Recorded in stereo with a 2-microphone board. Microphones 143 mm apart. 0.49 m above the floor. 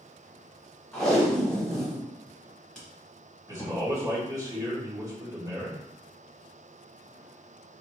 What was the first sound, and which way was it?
Tape being pulled, 5° left (ahead or behind).